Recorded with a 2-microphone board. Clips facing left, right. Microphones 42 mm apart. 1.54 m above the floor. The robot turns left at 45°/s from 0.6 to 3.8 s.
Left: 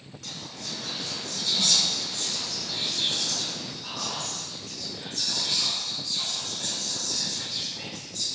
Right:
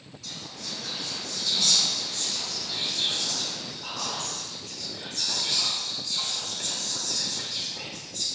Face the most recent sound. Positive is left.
turn(degrees=-55)  # may be behind; listen again after turning